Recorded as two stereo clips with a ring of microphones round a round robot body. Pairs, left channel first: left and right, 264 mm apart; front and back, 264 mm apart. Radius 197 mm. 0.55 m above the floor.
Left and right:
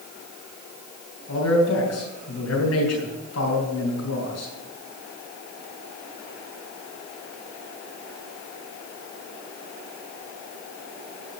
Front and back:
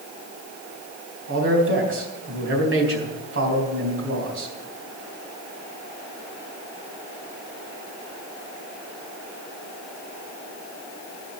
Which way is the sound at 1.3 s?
145° left.